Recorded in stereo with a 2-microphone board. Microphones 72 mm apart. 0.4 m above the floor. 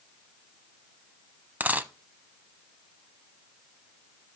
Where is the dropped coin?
25° right (ahead or behind), 0.6 m.